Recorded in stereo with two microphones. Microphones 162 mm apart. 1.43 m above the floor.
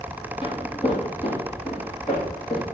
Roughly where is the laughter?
No laughter in this recording.